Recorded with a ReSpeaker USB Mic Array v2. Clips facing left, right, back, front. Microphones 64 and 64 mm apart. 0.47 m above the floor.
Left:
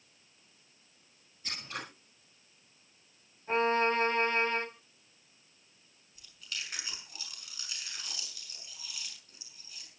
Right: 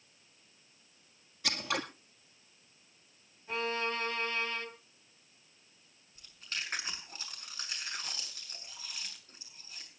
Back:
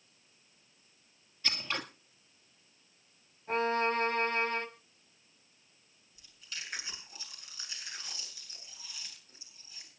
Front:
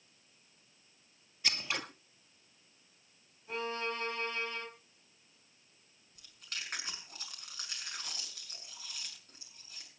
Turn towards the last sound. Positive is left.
turn(degrees=-40)